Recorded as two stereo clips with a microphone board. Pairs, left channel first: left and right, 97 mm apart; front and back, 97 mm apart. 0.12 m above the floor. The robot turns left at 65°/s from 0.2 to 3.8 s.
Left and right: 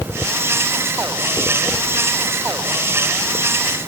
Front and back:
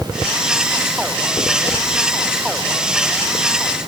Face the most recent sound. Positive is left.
No sound to turn to.